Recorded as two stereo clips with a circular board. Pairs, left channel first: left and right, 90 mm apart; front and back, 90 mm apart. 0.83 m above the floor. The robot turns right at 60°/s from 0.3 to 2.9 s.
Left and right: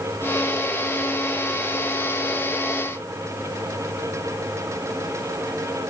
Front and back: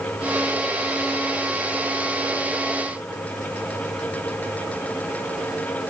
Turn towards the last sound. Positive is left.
No sound to turn to.